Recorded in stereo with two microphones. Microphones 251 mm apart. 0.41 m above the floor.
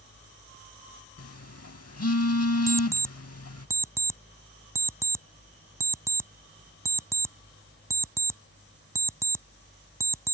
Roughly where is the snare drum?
I don't hear a snare drum.